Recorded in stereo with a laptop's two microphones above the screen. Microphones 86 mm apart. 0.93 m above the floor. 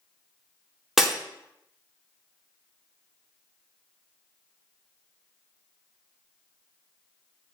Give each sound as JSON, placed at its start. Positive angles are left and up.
{"t": 1.0, "sound": "breaking glass", "side_deg": -5, "distance_m": 0.9}